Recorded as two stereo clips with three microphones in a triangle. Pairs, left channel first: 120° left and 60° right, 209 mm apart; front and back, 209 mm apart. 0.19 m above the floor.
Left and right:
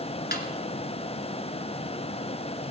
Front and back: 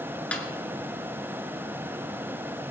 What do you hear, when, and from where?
0.3 s a snare drum: 85° left, 1.4 m